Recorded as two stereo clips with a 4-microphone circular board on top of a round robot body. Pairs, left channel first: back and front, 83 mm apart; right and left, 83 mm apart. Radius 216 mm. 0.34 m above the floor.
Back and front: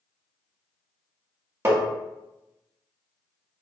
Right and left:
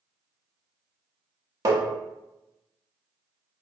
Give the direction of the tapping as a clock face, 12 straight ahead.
10 o'clock.